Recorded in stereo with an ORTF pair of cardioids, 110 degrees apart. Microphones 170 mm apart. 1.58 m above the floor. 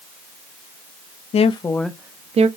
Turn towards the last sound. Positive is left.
turn(degrees=-40)